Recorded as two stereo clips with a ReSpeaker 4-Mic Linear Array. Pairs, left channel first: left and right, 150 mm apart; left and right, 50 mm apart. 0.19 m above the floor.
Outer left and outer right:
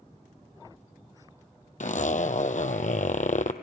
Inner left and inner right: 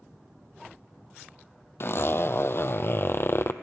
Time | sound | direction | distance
1.8 | a zipper | 55° left (ahead or behind) | 0.9 m